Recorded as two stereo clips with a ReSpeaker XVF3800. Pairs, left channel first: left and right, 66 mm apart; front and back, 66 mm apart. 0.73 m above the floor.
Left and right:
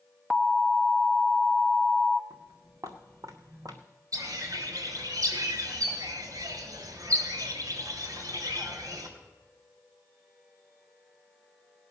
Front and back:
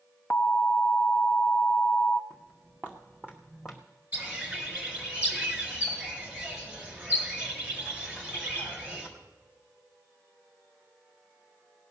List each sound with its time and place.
0.3 s an alarm: straight ahead, 0.6 m
2.3 s footsteps: 130° right, 3 m; by 3.8 s 90° right, 1.9 m
4.1 s a bird: 115° right, 3 m